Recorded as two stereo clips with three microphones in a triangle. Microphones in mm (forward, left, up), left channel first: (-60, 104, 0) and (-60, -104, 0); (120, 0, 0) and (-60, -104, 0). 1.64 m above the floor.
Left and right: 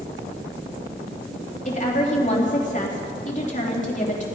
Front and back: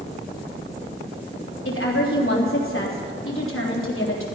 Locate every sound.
1.6 s a woman speaking: 35° left, 3.5 m